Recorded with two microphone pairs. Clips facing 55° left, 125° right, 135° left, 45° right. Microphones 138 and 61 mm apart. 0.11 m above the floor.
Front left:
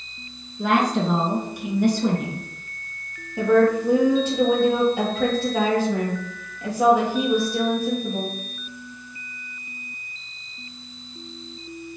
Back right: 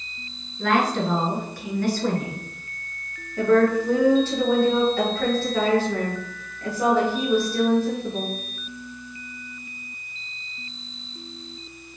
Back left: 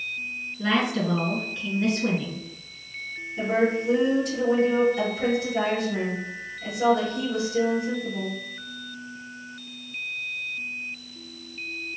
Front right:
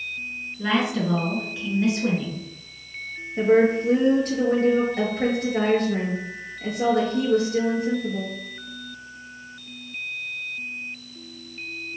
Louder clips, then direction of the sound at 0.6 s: Front left 1 dB, front right 1 dB; 35° left.